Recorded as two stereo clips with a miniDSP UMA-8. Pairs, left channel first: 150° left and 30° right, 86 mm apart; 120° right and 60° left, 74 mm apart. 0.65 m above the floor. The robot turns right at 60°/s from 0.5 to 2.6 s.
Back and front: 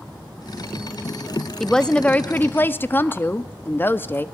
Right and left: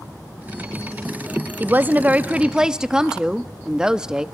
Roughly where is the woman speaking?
Left.